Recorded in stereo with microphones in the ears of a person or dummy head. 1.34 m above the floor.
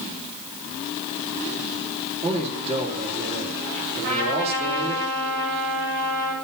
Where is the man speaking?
35° right (ahead or behind), 3 m.